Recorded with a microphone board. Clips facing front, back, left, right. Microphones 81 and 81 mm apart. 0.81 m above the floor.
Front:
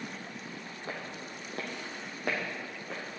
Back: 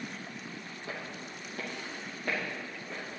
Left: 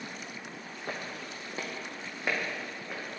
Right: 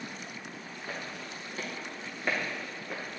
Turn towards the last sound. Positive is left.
turn(degrees=-5)